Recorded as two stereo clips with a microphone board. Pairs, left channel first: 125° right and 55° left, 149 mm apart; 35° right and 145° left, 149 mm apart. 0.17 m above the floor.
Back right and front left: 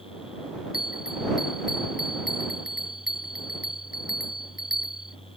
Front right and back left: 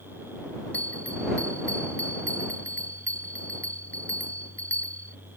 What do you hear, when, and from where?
0.7 s a bell: 115° right